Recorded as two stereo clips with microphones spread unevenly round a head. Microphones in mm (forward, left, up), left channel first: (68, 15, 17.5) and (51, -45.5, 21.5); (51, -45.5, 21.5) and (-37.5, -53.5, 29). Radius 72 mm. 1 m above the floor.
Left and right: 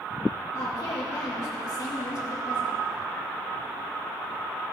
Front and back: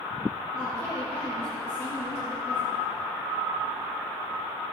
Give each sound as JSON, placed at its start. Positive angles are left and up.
{"t": 0.5, "sound": "a woman speaking", "azimuth_deg": 75, "distance_m": 3.5}